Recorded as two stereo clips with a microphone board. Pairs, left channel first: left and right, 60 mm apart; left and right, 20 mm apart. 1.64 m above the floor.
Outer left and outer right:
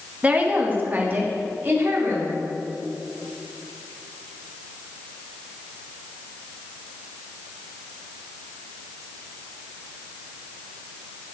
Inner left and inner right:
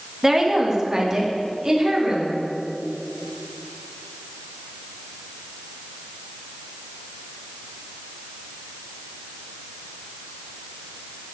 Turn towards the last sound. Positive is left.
turn(degrees=-40)  # may be behind; listen again after turning